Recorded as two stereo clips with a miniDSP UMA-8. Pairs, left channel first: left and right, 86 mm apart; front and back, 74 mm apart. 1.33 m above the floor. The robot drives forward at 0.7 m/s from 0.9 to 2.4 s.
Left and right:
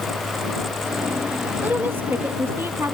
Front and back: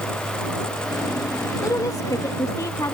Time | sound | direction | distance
1.6 | a woman speaking | 30° right | ?